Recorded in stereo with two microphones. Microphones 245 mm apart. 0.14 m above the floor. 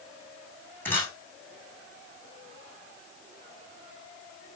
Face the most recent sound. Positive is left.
turn(degrees=10)  # may be behind; listen again after turning